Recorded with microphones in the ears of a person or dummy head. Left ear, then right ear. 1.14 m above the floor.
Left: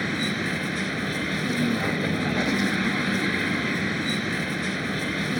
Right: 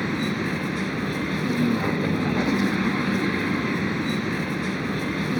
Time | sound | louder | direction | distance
0.0 | a vehicle | even | 20° left (ahead or behind) | ?